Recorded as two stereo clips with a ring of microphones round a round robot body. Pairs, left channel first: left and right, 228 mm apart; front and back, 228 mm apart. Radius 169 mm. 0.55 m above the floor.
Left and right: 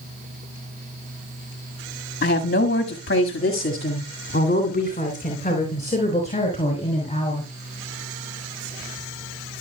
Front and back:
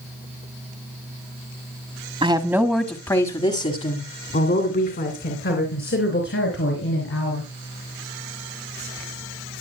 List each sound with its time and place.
2.2 s a woman speaking: 120° left, 1.3 m; by 7.5 s 25° left, 5.5 m